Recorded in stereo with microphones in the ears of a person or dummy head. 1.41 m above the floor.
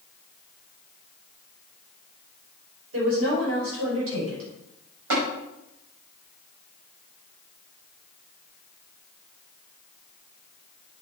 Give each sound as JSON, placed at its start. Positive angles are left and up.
{"t": 2.9, "sound": "a woman speaking", "side_deg": -80, "distance_m": 5.5}
{"t": 5.1, "sound": "tapping", "side_deg": -70, "distance_m": 5.0}